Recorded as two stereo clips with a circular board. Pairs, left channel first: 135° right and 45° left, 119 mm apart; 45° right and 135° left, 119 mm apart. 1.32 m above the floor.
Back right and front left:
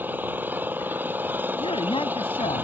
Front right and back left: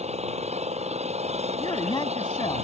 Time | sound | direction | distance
0.0 | an engine running | 120° left | ?
1.6 | a man speaking | 95° right | ?